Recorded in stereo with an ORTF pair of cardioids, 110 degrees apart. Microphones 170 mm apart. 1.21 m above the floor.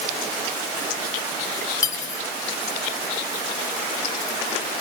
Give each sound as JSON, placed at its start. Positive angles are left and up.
{"t": 1.8, "sound": "cutlery clinking", "azimuth_deg": 20, "distance_m": 3.0}